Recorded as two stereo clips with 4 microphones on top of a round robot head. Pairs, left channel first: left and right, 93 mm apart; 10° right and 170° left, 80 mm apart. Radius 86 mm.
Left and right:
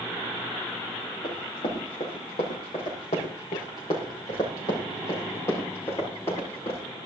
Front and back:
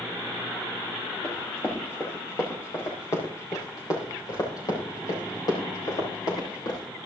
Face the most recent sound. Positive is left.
turn(degrees=20)